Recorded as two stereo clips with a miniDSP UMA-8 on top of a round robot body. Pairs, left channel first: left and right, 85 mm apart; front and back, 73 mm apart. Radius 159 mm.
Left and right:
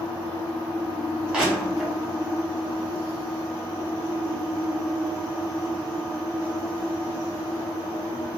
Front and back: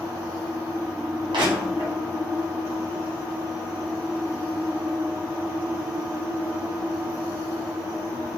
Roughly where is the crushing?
Behind.